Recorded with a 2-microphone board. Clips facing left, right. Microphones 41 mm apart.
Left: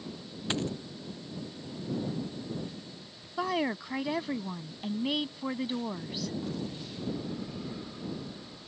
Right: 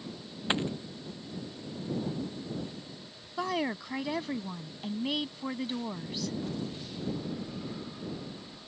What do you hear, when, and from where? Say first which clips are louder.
0.5 s a dropped coin: right 2 dB; 20° right (ahead or behind)
3.4 s a woman speaking: left 1 dB; 5° left (ahead or behind)